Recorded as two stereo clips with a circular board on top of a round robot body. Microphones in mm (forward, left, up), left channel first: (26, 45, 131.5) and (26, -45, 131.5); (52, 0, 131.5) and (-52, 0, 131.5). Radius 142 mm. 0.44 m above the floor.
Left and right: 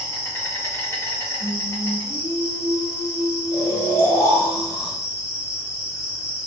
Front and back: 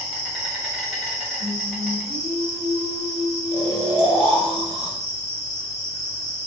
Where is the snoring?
140° right, 1.0 m.